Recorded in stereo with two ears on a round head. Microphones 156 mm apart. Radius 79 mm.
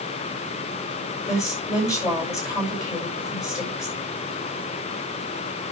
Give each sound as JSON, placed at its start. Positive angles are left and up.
{"t": 1.3, "sound": "a woman speaking", "side_deg": 20, "distance_m": 6.0}